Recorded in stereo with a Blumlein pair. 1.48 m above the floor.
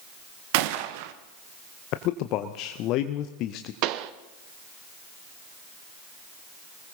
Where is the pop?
40° right, 0.6 m.